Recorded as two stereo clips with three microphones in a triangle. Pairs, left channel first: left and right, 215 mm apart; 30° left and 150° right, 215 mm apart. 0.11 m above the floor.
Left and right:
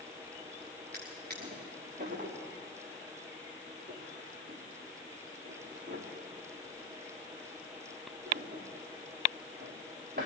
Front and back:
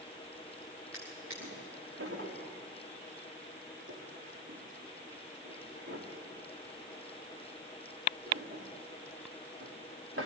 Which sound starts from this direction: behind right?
A drawer, at 0.9 s.